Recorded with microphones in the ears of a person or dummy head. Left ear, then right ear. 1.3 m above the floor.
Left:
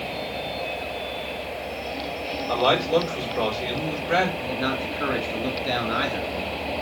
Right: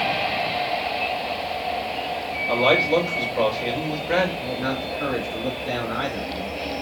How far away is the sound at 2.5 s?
About 4 m.